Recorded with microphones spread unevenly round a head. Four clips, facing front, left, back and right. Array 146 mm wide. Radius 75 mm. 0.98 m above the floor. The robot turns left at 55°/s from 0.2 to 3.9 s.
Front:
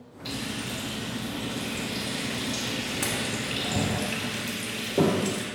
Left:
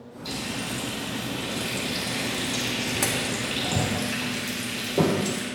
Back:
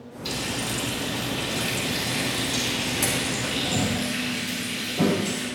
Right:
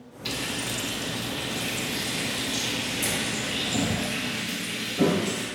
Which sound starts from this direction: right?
Frying, at 0.2 s.